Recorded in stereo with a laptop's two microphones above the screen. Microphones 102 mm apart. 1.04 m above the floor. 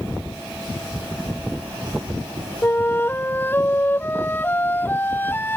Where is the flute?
20° left (ahead or behind).